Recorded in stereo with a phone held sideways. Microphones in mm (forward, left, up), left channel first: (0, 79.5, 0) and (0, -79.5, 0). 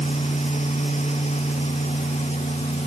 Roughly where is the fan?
Left.